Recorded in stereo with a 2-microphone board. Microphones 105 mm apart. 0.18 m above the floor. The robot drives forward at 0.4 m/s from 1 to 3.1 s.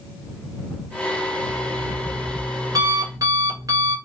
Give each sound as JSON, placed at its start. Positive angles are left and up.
{"t": 1.4, "sound": "an alarm clock", "side_deg": -45, "distance_m": 1.1}